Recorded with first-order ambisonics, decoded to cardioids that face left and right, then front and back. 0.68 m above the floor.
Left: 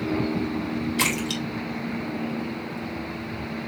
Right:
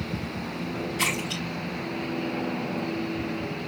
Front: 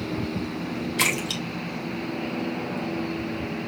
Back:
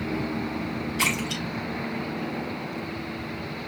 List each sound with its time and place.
1.0 s a splash: 35° left, 3 m